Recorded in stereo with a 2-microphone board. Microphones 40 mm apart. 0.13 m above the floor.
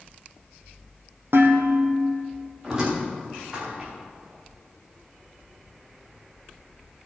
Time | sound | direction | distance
1.3 | dishes clattering | 65° right (ahead or behind) | 3 m
2.6 | a squeak | 10° right (ahead or behind) | 6 m